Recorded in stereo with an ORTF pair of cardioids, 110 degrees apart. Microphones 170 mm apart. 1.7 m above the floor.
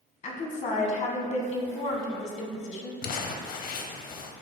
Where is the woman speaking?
45° left, 1.6 m.